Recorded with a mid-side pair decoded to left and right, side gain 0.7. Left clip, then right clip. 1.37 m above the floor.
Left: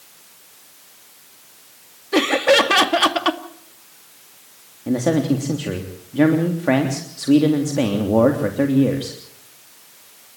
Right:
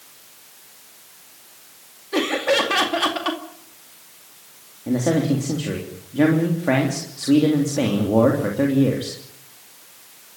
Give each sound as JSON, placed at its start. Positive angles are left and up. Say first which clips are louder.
{"t": 2.1, "sound": "laughter", "louder": "left 5 dB", "azimuth_deg": 25, "distance_m": 2.0}
{"t": 4.9, "sound": "a man speaking", "louder": "left 1 dB", "azimuth_deg": 15, "distance_m": 3.0}